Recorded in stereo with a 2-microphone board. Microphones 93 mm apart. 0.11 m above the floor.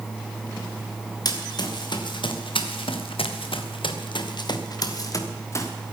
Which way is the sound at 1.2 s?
50° left (ahead or behind).